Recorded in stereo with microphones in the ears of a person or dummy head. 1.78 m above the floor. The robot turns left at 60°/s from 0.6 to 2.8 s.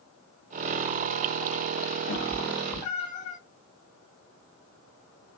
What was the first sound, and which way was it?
A cat meowing, 40° left (ahead or behind).